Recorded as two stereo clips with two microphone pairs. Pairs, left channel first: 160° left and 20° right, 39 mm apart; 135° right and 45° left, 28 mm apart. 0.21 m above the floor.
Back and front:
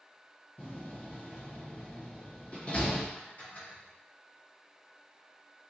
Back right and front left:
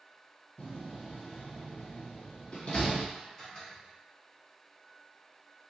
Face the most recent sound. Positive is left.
turn(degrees=155)